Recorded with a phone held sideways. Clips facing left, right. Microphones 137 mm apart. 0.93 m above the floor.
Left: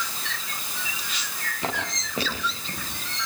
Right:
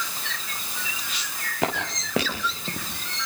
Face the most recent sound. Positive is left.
turn(degrees=-75)  # may be behind; listen again after turning